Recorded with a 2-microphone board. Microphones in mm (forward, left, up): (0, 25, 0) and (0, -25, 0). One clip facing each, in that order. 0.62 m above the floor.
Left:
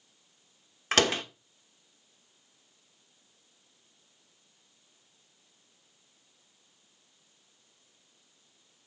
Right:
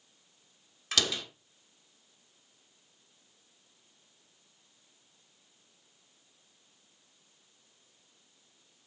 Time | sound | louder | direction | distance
0.9 | a door slam | left 6 dB | 45° left (ahead or behind) | 0.9 m